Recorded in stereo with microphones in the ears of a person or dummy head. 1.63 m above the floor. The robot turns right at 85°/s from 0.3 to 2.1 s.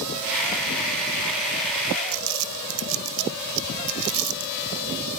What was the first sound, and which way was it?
Crumpling, 80° right.